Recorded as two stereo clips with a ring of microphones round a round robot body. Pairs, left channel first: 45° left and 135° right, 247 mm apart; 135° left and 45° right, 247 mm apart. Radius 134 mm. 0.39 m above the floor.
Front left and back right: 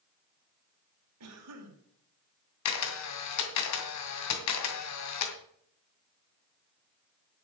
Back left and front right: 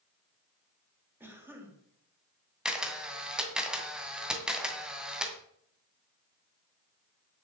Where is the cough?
125° right, 3.5 m.